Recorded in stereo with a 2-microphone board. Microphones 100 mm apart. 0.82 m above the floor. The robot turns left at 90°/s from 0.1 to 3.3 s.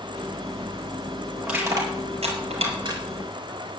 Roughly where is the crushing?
Centre.